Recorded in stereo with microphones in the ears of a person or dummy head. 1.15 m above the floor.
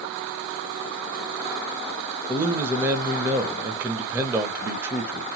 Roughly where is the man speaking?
Centre.